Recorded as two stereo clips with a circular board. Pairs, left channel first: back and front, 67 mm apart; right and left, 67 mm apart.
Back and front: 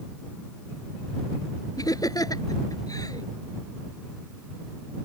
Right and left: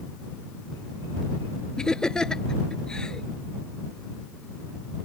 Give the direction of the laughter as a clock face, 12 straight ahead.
6 o'clock.